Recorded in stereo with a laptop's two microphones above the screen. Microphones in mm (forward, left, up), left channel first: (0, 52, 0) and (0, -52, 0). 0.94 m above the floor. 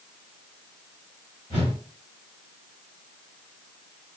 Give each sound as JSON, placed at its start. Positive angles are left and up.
{"t": 1.5, "sound": "a whoosh", "side_deg": 45, "distance_m": 2.0}